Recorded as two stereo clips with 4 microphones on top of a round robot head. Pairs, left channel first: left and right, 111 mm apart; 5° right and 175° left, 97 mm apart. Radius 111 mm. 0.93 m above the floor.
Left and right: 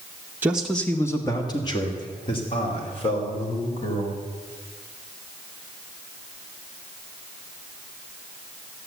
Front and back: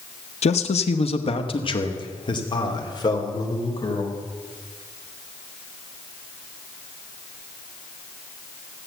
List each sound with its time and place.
0.4 s a man speaking: 15° right, 0.7 m; by 4.2 s 50° left, 4 m